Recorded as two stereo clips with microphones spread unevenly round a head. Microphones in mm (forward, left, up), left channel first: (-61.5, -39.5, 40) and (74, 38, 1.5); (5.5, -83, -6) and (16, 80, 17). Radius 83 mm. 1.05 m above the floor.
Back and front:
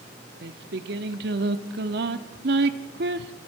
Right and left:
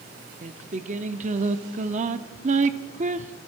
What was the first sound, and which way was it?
Singing, 60° left.